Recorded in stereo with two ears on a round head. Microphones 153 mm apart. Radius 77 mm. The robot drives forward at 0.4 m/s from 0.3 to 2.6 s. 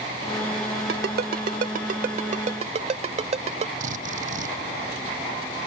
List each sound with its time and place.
0.9 s a ringtone: 70° right (ahead or behind); by 3.7 s 40° right (ahead or behind)
3.8 s a drill: 50° right (ahead or behind)